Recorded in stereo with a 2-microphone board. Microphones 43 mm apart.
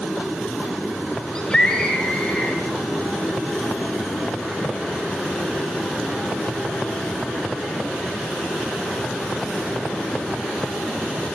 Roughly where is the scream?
Centre.